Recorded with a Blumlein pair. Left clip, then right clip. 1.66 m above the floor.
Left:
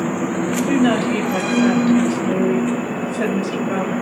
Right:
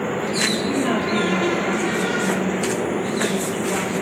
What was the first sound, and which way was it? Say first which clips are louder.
A woman speaking: left 3 dB; 65° left.